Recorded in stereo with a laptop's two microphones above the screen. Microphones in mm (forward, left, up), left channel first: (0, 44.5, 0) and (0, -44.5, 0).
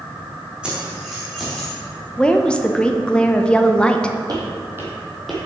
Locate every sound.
0.6 s keys jangling: 10° right (ahead or behind), 1.8 m; by 1.8 s 5° left (ahead or behind), 1.8 m
2.2 s a woman speaking: 10° left (ahead or behind), 0.7 m
4.3 s footsteps: 45° right (ahead or behind), 1.6 m; by 5.4 s 5° left (ahead or behind), 1.5 m